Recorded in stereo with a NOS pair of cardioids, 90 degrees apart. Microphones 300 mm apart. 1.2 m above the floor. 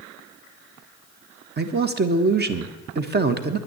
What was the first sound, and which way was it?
A man speaking, 35° right.